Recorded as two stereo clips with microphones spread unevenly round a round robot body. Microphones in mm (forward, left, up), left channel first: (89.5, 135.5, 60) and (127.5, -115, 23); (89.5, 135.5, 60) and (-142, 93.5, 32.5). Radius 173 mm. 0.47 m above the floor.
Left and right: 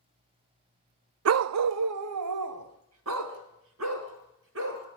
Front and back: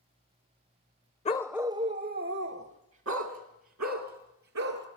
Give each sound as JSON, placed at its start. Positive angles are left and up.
{"t": 1.2, "sound": "a dog barking", "azimuth_deg": -60, "distance_m": 0.6}